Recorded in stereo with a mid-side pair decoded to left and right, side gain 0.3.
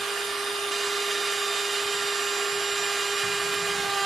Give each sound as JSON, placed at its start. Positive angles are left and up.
{"t": 0.0, "sound": "a machine running", "azimuth_deg": -70, "distance_m": 1.4}